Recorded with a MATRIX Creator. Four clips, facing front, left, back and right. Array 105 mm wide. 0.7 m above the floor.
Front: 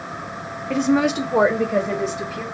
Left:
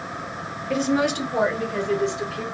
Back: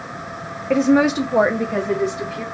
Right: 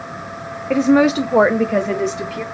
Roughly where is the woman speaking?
Behind right.